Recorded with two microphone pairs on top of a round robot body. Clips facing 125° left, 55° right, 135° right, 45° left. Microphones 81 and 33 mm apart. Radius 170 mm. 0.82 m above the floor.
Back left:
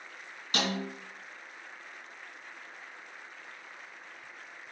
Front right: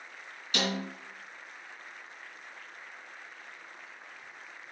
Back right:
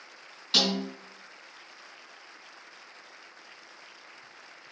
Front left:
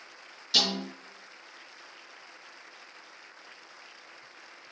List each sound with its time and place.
0.5 s a snare drum: 170° left, 3.5 m